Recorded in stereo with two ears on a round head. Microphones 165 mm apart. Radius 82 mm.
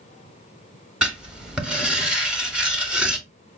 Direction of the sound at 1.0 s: 5° right (ahead or behind).